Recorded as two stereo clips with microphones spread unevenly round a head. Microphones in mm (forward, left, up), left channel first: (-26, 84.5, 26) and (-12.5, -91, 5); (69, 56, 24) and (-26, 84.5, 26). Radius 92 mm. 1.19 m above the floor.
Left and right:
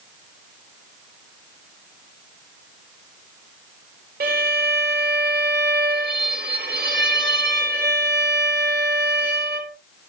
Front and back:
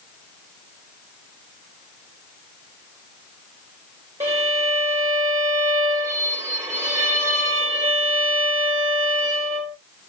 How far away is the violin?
About 1.7 m.